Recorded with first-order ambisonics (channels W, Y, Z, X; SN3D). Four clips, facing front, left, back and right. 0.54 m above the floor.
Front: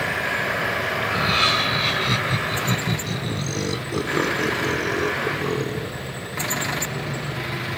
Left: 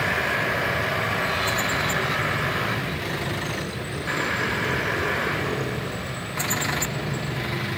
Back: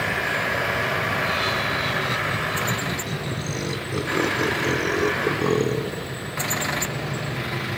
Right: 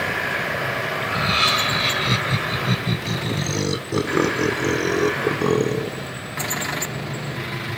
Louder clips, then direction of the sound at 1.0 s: Right 4 dB, front 3 dB; 50° right.